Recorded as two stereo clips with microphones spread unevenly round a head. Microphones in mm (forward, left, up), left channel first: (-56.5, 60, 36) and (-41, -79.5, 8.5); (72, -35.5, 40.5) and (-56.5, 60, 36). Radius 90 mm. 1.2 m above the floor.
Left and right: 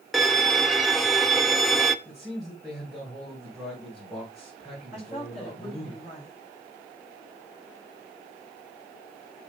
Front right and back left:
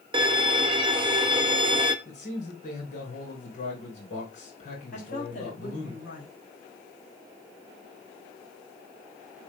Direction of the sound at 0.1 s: 165° right.